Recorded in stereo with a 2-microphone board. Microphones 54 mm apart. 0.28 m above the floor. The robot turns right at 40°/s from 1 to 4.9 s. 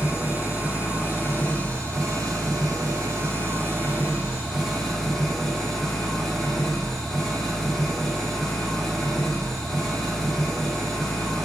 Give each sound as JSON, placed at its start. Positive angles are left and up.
{"t": 0.0, "sound": "an engine running", "azimuth_deg": -145, "distance_m": 4.0}